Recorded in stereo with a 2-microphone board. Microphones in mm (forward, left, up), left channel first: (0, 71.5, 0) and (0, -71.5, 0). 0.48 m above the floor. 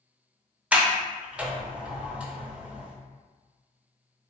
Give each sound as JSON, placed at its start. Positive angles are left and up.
{"t": 0.7, "sound": "a sliding door", "side_deg": -10, "distance_m": 0.7}